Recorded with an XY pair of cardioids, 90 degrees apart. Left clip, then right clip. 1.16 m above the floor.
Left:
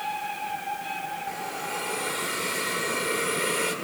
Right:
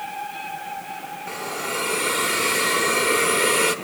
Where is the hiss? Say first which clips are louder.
Right 4 dB; 70° right, 1.4 m.